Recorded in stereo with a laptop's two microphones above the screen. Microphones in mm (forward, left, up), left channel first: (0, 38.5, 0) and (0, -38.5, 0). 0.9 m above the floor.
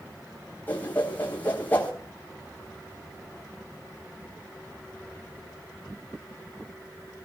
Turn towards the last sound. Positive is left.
turn(degrees=25)  # may be behind; listen again after turning